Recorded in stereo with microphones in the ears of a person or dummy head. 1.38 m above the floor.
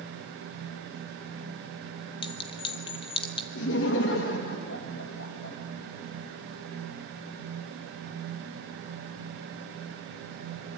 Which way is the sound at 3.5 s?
70° left (ahead or behind).